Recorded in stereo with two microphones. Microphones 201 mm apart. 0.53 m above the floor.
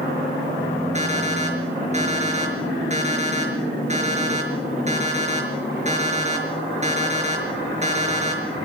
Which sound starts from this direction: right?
An alarm clock, at 0.9 s.